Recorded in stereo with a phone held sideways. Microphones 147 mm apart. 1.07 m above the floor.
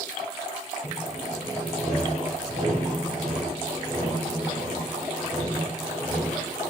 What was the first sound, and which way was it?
Sawing, 65° right (ahead or behind).